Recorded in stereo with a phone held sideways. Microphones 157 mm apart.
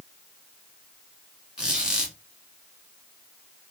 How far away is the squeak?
About 1.1 m.